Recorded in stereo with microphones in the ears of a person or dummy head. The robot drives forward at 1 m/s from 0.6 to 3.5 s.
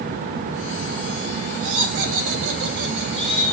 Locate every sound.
1.6 s laughter: 75° right (ahead or behind), 1.7 m; by 3.5 s 45° right (ahead or behind), 2.5 m